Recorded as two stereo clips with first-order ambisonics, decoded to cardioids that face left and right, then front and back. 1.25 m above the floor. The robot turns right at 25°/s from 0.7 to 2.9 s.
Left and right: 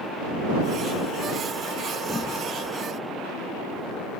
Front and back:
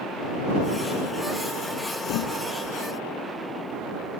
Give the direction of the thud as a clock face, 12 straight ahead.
12 o'clock.